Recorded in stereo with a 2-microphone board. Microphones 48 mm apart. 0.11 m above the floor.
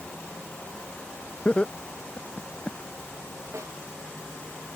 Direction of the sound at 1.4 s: 25° left (ahead or behind).